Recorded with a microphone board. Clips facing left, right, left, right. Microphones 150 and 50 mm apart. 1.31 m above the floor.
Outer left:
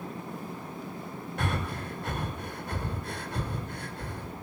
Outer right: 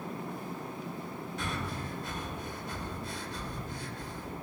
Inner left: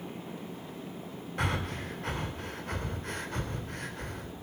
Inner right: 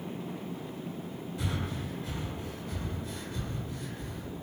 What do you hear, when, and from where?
1.4 s breathing: 60° left (ahead or behind), 2.5 m